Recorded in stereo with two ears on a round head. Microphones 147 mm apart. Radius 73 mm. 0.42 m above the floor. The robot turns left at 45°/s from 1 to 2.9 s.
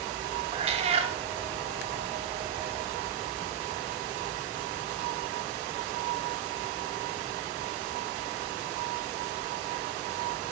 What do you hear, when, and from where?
0.5 s a cat meowing: 35° right (ahead or behind), 0.6 m; by 1.1 s 30° right (ahead or behind), 0.6 m